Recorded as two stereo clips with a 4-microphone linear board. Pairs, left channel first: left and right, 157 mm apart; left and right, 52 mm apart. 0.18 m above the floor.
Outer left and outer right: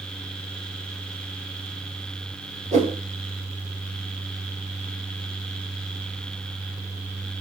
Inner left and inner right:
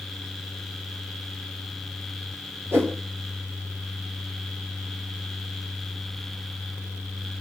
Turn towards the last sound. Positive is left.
turn(degrees=-50)  # may be behind; listen again after turning